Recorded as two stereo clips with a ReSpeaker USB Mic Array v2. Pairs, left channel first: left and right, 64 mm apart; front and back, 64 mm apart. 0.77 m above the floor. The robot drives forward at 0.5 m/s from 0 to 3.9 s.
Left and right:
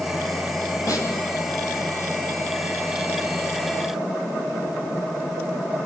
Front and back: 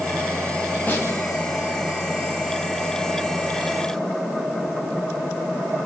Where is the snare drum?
60° left, 5 m.